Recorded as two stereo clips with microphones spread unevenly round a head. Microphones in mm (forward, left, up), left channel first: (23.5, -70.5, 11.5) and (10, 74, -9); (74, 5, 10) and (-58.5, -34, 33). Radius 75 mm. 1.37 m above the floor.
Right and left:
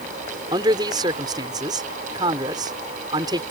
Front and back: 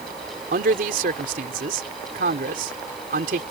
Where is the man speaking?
160° left.